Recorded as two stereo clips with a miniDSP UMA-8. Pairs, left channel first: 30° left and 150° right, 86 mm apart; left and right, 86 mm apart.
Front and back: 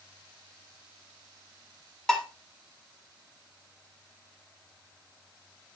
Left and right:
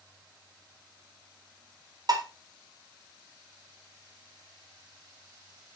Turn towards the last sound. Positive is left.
turn(degrees=-55)